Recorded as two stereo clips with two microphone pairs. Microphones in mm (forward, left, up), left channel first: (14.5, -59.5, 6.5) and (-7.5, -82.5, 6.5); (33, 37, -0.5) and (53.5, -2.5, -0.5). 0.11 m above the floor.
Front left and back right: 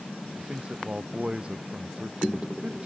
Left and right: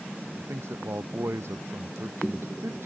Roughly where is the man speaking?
Right.